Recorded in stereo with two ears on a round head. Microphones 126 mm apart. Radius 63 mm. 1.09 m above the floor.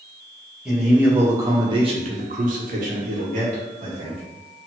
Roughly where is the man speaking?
Centre.